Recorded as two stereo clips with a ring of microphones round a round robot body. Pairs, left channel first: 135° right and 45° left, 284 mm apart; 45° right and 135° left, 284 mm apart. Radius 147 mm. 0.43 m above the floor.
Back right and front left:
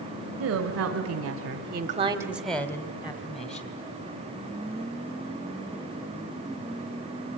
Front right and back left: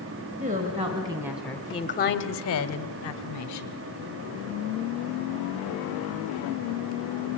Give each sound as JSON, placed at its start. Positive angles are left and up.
{"t": 0.4, "sound": "a woman speaking", "azimuth_deg": 75, "distance_m": 2.0}